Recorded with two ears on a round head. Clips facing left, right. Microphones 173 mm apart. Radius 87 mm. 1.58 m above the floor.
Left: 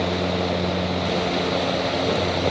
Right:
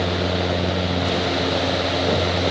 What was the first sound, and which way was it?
Only background noise.